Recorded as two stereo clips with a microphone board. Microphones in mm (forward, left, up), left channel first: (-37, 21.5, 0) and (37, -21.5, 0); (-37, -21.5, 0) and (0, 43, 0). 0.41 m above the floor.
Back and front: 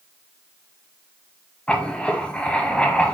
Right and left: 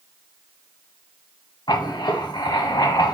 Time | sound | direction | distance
1.7 | writing | 135° right | 0.6 m